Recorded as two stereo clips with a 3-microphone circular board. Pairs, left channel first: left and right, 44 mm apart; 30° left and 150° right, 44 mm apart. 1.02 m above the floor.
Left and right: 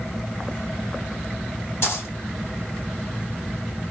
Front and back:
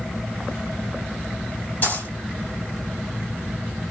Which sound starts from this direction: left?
A dropped coin, at 1.8 s.